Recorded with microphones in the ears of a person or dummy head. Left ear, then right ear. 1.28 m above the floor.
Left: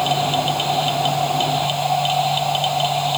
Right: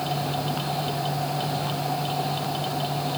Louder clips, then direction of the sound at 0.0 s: Left 9 dB; 50° left (ahead or behind).